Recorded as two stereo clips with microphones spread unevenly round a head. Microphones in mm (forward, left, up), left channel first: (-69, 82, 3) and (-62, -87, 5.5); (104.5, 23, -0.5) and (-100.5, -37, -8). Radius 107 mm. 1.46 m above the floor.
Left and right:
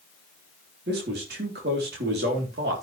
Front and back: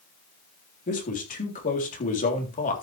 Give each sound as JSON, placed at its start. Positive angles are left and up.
{"t": 0.9, "sound": "a man speaking", "azimuth_deg": -40, "distance_m": 3.5}